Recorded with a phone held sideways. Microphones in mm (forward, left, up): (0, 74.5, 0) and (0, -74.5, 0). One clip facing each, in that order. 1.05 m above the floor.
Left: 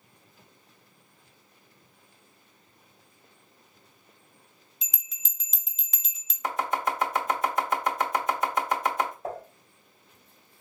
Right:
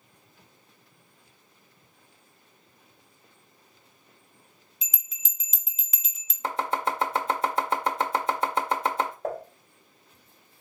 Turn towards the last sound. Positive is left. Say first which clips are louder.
# right 3 dB
turn(degrees=-45)  # may be behind; listen again after turning